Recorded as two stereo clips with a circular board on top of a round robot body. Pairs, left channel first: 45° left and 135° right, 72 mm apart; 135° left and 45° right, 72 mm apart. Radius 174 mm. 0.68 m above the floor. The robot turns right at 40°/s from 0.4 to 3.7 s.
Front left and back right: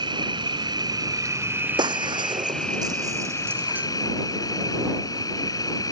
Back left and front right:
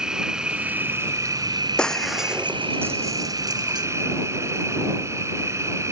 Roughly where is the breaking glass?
Behind right.